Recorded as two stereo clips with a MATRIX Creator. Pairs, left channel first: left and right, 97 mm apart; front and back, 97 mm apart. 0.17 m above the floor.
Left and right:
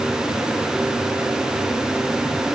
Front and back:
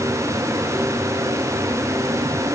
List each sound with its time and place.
Only background noise.